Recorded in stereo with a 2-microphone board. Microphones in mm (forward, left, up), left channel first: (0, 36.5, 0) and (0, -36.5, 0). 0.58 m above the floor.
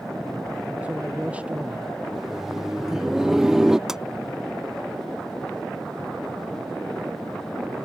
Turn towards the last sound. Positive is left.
turn(degrees=-5)  # may be behind; listen again after turning